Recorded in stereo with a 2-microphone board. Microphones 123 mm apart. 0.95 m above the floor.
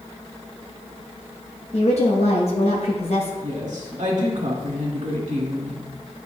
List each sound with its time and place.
1.7 s a woman speaking: 60° left (ahead or behind), 1.0 m
3.4 s a woman speaking: 75° right (ahead or behind), 1.8 m